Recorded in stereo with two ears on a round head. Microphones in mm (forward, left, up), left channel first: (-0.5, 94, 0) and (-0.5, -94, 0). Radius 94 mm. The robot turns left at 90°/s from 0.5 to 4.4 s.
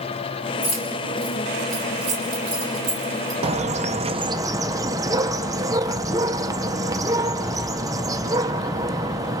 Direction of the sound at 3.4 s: 60° right.